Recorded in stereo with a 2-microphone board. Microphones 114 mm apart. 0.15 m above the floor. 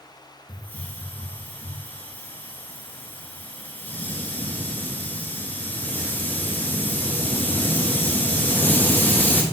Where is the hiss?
15° left (ahead or behind), 1.4 m.